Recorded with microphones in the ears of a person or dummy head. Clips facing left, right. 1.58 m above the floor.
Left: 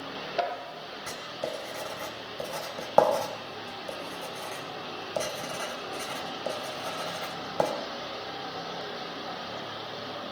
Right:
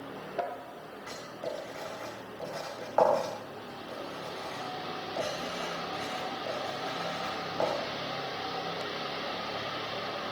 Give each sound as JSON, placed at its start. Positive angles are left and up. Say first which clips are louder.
{"t": 1.1, "sound": "writing", "louder": "left 2 dB", "side_deg": 65, "distance_m": 3.0}